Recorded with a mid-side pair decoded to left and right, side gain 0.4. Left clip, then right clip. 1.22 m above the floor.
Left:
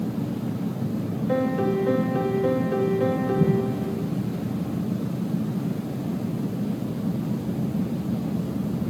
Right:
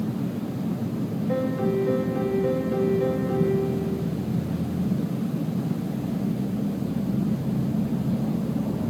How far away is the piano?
About 1.0 m.